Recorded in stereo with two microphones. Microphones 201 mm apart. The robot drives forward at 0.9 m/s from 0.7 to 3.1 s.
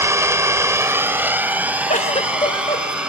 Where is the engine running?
15° right (ahead or behind), 1.0 m; by 3.1 s 5° right (ahead or behind), 3 m.